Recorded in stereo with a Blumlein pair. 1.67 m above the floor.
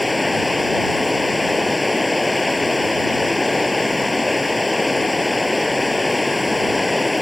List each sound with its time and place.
0.0 s running water: 10° left